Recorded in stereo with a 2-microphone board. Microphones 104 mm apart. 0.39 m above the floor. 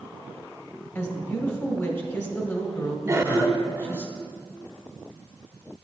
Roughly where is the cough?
Right.